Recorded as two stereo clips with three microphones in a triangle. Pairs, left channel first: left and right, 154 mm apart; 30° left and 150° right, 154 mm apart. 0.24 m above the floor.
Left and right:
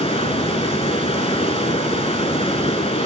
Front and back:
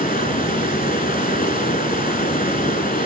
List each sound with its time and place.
0.0 s running water: 45° left, 0.8 m